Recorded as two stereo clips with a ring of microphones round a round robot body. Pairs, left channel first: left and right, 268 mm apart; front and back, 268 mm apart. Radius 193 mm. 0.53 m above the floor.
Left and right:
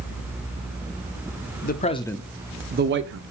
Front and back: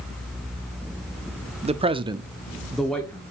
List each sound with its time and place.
1.6 s a man speaking: 125° left, 1.3 m; by 3.2 s 80° right, 1.5 m